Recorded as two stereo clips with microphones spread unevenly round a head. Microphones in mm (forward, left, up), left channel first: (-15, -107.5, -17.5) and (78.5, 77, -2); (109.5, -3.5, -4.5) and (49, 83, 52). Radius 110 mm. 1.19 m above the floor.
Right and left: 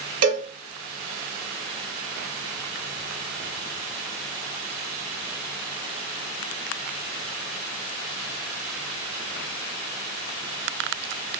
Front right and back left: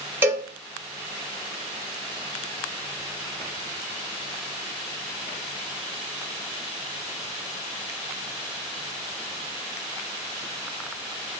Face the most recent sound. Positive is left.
turn(degrees=50)